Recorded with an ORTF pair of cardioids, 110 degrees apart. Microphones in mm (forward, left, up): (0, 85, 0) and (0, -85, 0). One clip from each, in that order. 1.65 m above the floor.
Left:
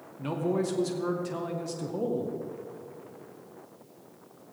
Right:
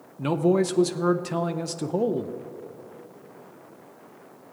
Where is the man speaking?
35° right, 0.5 m.